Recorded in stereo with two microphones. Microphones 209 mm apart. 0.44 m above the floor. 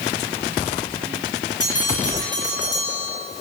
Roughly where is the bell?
Centre.